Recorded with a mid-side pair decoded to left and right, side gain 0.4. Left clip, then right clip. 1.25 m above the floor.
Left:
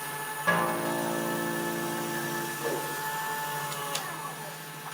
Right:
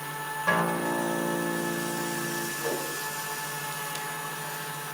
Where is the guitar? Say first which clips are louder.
Right 1 dB; 5° left, 3 m.